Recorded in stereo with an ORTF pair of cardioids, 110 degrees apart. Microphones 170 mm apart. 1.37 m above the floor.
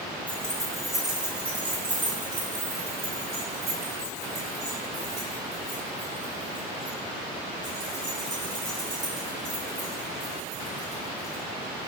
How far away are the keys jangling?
About 1.3 m.